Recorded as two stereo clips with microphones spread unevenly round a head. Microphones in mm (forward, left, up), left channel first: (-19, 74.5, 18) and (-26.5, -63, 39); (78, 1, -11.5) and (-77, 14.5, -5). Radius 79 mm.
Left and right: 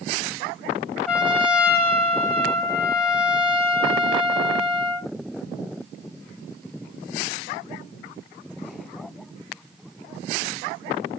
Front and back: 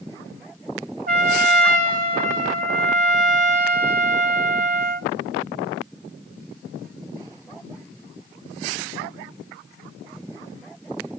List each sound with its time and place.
1.1 s a trumpet: 170° left, 2.5 m